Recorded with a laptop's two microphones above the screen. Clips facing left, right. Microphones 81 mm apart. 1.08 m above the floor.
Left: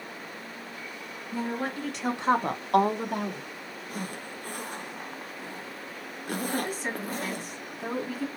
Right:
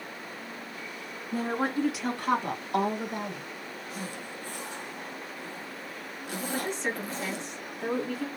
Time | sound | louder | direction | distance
1.3 | a woman speaking | right 3 dB | 45° right (ahead or behind) | 1.2 m
3.9 | a zipper | left 3 dB | 55° left (ahead or behind) | 0.6 m
6.5 | a woman speaking | even | 10° left (ahead or behind) | 1.6 m